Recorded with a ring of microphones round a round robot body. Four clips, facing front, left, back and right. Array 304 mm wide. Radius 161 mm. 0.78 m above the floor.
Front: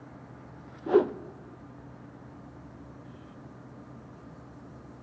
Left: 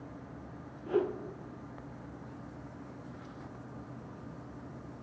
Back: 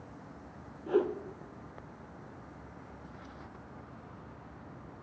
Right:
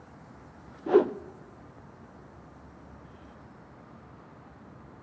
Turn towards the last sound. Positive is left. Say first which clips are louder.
# right 9 dB, front 6 dB
turn(degrees=-55)